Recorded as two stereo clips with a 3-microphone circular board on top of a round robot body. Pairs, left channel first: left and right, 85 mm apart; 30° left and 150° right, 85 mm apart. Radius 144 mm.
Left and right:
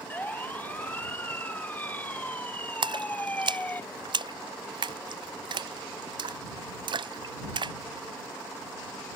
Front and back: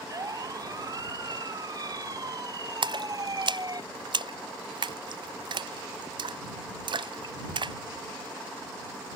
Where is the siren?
160° left.